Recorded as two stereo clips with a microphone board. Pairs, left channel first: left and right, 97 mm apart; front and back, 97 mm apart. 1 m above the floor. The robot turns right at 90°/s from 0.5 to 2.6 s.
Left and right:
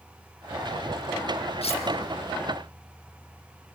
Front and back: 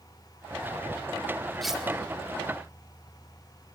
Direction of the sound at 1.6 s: 85° left.